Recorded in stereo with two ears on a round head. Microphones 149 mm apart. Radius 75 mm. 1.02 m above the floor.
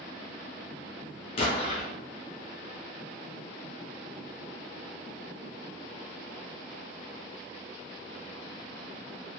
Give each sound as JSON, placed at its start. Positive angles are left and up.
{"t": 1.4, "sound": "an explosion", "side_deg": 35, "distance_m": 0.7}